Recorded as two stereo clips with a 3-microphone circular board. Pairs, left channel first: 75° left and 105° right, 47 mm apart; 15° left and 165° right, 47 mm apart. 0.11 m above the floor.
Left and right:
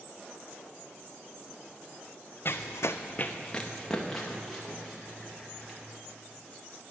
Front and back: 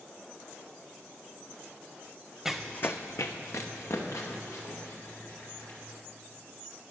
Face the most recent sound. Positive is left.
turn(degrees=-15)